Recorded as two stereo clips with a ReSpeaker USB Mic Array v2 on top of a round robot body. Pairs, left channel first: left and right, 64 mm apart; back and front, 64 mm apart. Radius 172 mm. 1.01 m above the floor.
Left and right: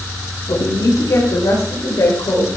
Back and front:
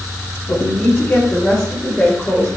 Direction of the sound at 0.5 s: 115° left.